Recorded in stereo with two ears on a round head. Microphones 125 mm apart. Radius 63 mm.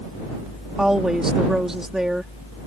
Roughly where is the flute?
No flute in this recording.